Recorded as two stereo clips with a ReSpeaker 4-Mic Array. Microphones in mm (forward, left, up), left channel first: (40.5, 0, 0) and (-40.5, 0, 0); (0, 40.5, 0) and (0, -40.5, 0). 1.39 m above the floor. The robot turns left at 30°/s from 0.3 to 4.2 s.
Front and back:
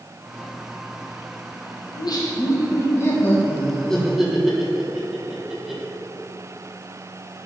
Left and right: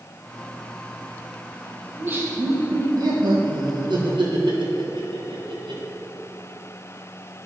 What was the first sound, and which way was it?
Laughter, 25° right.